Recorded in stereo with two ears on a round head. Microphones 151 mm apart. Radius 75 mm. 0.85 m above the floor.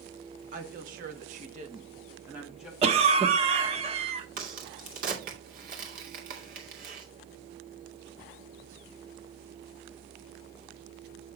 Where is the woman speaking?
55° right (ahead or behind), 2.0 m; by 2.7 s centre (ahead or behind), 1.7 m.